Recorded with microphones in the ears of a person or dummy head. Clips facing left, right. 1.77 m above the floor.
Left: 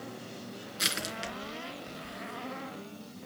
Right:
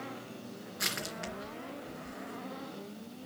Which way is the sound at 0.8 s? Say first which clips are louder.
Left 2 dB; 45° left (ahead or behind).